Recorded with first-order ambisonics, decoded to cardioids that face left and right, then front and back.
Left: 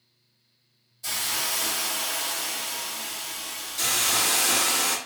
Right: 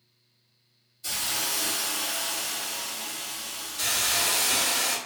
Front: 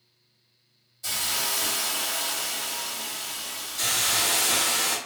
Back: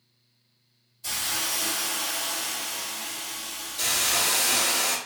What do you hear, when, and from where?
1.0 s a hiss: 40° left, 1.5 m
3.8 s a hiss: 75° left, 1.2 m